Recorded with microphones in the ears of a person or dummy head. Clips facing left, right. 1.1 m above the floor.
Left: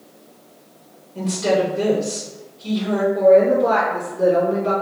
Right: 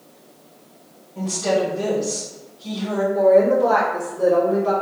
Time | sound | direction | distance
1.1 | a woman speaking | 30° left (ahead or behind) | 0.9 m
3.1 | a woman speaking | 10° left (ahead or behind) | 1.9 m